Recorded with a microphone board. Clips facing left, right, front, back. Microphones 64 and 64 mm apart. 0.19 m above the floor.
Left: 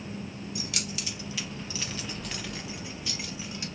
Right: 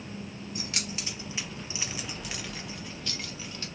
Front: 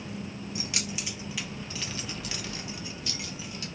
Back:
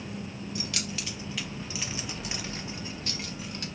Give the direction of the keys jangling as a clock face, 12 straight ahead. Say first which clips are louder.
Right 1 dB, even; 2 o'clock.